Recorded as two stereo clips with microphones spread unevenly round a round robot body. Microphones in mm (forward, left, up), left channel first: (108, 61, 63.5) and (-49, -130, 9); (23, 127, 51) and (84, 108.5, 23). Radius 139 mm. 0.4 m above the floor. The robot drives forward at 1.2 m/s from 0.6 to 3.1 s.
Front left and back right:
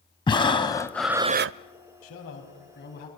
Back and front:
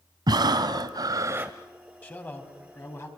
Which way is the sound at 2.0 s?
95° left.